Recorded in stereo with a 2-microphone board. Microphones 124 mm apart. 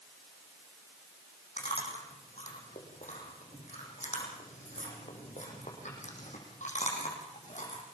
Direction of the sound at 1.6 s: 75° left (ahead or behind).